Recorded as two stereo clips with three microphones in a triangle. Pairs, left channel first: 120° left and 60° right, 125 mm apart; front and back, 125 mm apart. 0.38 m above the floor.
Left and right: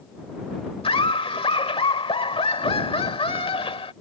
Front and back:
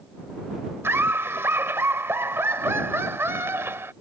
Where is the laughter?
115° left.